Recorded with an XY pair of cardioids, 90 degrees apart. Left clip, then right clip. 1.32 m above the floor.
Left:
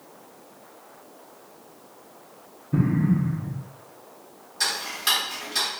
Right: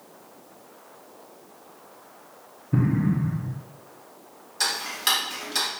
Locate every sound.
2.7 s an explosion: 20° right, 0.6 m
4.6 s ticking: 35° right, 1.4 m